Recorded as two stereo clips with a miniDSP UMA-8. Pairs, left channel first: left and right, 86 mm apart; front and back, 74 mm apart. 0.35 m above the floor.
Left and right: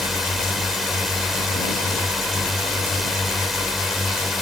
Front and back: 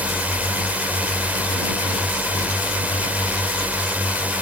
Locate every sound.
0.0 s a drone: 175° right